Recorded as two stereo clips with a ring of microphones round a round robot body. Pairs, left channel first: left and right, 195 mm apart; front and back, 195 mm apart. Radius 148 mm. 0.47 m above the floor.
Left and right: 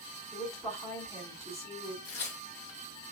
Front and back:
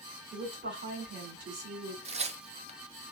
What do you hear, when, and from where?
0.3 s a woman speaking: 170° left, 2 m
2.0 s tearing paper: 120° left, 0.6 m